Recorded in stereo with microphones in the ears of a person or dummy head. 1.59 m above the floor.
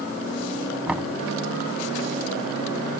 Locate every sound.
0.9 s knocking: 5° right (ahead or behind)